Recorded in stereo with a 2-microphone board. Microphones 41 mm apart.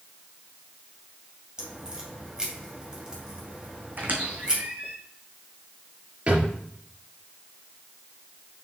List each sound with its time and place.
1.6 s a crack: 20° right (ahead or behind), 2 m
4.0 s a squeak: 50° right (ahead or behind), 1.9 m
6.3 s a drawer: 35° right (ahead or behind), 4 m